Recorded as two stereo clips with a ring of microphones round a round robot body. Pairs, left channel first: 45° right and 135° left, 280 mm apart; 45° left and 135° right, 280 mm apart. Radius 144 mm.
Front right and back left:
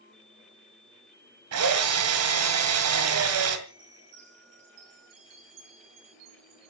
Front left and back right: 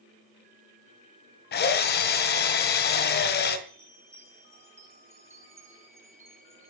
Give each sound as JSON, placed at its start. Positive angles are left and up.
{"t": 1.5, "sound": "a drill", "azimuth_deg": 100, "distance_m": 2.5}
{"t": 3.7, "sound": "a chime", "azimuth_deg": 145, "distance_m": 6.0}